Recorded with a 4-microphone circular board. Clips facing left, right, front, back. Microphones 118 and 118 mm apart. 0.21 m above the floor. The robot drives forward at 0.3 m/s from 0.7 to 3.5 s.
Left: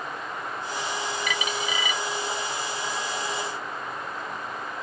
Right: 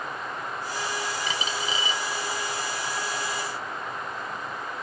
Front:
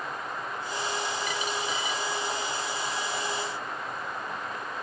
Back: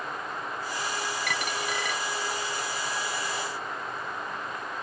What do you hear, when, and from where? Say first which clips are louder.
1.3 s a dropped coin: left 1 dB, even; 150° right; by 2.0 s 155° right